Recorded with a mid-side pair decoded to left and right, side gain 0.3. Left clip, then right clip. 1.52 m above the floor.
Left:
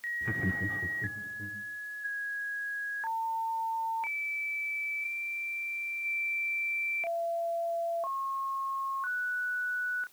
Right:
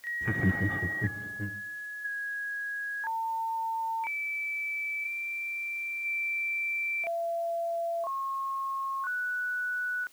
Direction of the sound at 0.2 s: 30° right.